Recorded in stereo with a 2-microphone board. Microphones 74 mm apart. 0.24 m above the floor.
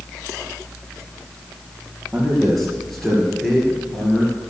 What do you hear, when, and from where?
2.1 s a man speaking: centre (ahead or behind), 5 m; by 4.4 s 10° left (ahead or behind), 3 m